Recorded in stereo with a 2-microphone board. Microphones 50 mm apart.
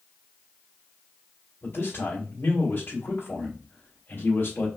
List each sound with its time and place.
1.6 s a man speaking: 40° left (ahead or behind), 2.0 m